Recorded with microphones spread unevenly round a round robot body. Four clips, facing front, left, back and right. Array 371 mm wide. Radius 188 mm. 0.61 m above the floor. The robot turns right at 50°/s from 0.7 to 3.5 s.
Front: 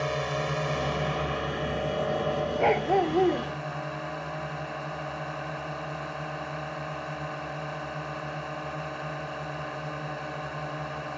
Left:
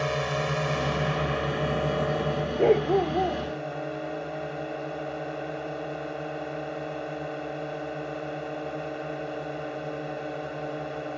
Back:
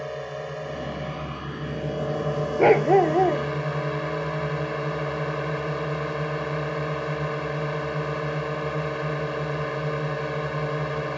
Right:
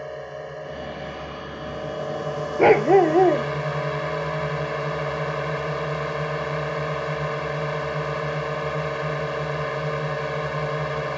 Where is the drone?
80° left; by 11.2 s 140° right.